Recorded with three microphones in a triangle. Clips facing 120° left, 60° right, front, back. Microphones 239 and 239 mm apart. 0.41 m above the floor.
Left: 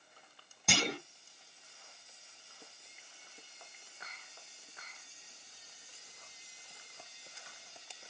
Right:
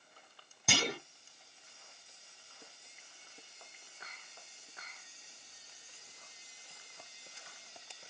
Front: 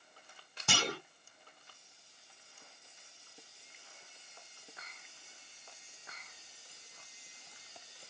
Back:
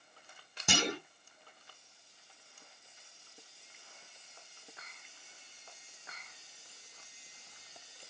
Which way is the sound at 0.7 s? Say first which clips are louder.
Left 1 dB, back 3 dB; 145° right.